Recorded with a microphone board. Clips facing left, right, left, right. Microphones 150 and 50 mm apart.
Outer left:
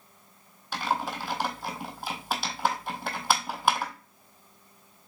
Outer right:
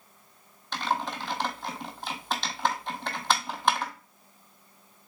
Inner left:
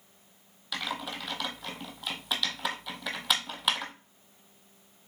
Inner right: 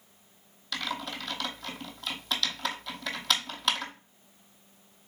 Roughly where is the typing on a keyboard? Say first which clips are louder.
Even, even; centre.